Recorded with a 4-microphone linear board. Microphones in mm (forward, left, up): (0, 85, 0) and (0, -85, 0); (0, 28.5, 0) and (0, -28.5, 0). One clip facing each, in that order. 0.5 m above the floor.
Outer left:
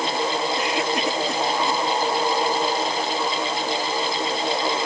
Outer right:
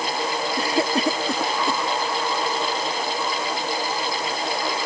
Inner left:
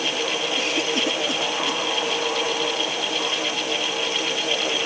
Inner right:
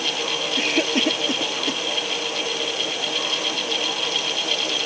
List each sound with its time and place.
0.6 s a cough: 35° right (ahead or behind)